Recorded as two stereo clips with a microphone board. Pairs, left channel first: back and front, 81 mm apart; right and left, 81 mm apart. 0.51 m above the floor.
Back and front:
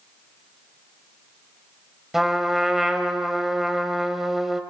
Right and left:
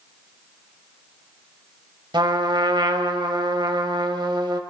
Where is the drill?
No drill in this recording.